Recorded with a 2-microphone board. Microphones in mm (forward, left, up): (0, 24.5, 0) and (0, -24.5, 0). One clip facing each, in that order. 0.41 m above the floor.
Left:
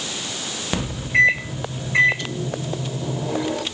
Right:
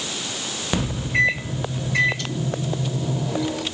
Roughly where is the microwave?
Left.